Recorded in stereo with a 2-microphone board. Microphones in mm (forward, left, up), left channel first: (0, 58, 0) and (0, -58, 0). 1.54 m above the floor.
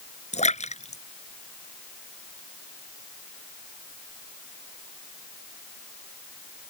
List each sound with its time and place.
0.3 s a splash: 75° left (ahead or behind)